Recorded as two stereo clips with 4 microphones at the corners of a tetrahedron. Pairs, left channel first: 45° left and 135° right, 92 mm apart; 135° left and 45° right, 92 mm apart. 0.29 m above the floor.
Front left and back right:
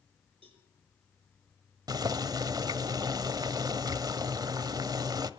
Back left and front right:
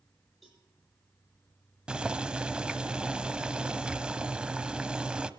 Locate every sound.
0.4 s a cowbell: 135° right, 9 m
1.9 s boiling: 120° right, 1.1 m